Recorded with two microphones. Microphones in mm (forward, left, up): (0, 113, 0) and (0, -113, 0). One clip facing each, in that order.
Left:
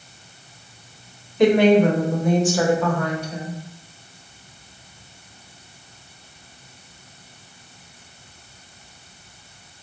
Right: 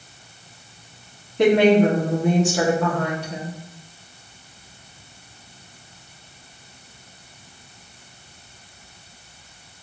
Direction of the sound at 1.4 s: 70° right (ahead or behind).